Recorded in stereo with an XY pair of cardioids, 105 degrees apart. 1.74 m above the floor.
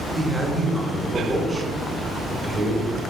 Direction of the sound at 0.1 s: 15° right.